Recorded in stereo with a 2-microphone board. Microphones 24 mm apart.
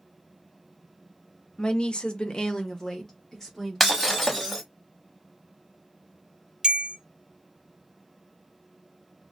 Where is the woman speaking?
40° left (ahead or behind), 0.6 m; by 4.6 s 10° left (ahead or behind), 1.9 m.